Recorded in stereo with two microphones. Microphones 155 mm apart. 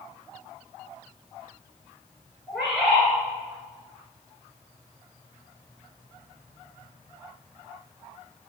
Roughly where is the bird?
Centre.